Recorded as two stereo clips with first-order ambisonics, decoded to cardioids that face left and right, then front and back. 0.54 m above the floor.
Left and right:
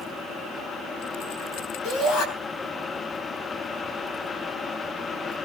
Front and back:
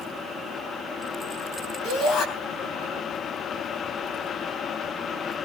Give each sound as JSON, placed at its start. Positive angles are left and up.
{"t": 1.8, "sound": "a shout", "azimuth_deg": 50, "distance_m": 3.0}